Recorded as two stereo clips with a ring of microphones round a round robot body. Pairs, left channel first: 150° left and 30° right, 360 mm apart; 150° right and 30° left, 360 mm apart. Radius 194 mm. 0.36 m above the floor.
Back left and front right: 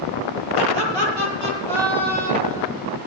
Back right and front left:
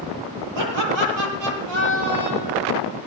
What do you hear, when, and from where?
0.6 s laughter: 5° right, 8.5 m; by 2.7 s 15° right, 9.5 m